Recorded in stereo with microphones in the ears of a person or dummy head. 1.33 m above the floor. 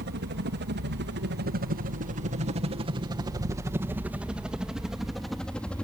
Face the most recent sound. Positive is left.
turn(degrees=5)  # may be behind; listen again after turning